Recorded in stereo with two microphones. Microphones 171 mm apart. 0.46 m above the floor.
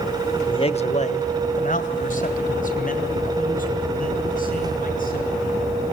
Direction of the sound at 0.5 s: 25° left (ahead or behind).